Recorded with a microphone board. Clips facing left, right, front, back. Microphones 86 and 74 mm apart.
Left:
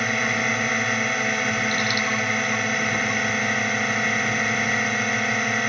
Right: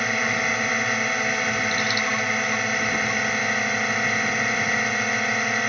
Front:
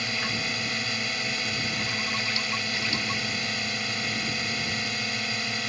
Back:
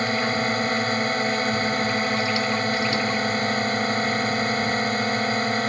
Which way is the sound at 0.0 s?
Straight behind.